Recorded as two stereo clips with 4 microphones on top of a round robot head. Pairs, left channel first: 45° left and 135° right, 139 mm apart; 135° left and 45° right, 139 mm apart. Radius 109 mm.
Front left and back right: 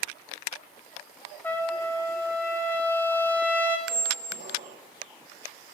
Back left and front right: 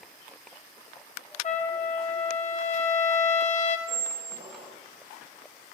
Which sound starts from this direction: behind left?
A trumpet, at 1.4 s.